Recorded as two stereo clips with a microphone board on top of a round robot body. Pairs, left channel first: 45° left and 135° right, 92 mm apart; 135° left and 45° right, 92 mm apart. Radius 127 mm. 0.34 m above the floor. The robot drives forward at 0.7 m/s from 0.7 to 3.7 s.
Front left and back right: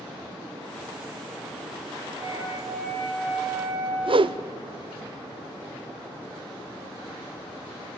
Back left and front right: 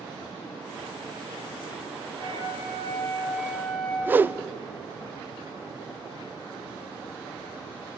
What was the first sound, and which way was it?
A flute, 80° right.